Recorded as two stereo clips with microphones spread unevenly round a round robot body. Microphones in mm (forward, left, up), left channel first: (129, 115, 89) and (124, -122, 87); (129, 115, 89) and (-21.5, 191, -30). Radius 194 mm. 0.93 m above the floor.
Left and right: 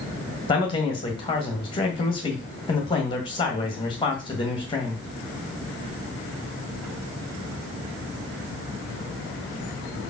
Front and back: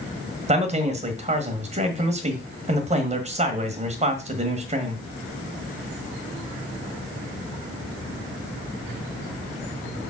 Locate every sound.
0.5 s a man speaking: 160° left, 1.3 m